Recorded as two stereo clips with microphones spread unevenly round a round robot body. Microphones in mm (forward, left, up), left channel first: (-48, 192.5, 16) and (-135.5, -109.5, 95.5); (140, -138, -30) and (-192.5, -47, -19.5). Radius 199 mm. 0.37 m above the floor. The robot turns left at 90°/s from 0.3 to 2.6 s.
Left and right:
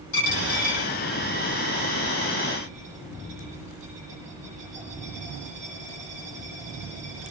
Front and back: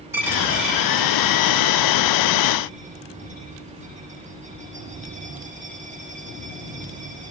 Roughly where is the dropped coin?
Left.